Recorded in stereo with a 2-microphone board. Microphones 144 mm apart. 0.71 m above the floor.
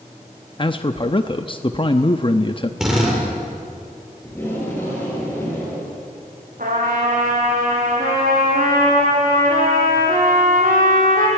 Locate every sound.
0.6 s a man speaking: 35° left (ahead or behind), 0.8 m
2.8 s a drill: 5° right (ahead or behind), 6.5 m
4.2 s tape being pulled: 15° left (ahead or behind), 9 m
6.6 s a trumpet: 75° right (ahead or behind), 6 m